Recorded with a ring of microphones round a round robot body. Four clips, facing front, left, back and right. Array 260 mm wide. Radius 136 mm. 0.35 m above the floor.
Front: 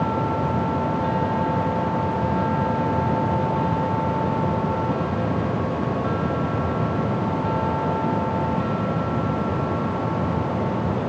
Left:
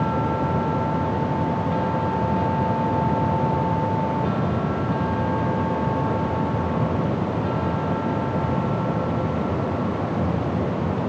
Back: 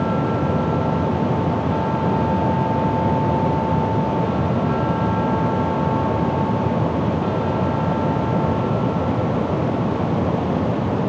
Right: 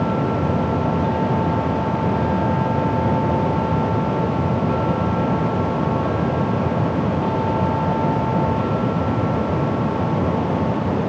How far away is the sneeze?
I don't hear a sneeze.